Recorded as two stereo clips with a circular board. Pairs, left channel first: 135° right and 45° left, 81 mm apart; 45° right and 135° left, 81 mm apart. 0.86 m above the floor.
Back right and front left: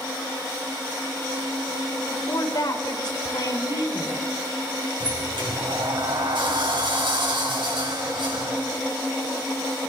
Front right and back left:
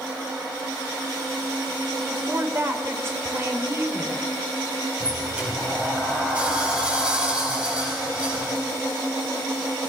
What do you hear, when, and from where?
2.1 s a woman speaking: 170° right, 2.5 m
5.0 s a sliding door: 60° left, 5.5 m